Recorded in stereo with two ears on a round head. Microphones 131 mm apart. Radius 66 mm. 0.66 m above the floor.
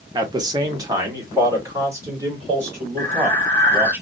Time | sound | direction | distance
0.1 | a man speaking | 25° right (ahead or behind) | 0.7 m
3.0 | breathing | 10° left (ahead or behind) | 1.2 m